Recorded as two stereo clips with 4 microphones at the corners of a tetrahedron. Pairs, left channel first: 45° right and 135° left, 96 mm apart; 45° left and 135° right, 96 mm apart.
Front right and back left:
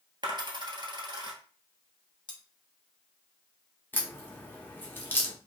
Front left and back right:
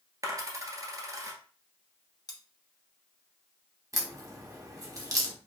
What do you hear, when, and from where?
0.2 s a dropped coin: 175° left, 1.2 m
2.3 s cutlery clinking: straight ahead, 0.8 m
3.9 s a crack: 100° right, 1.0 m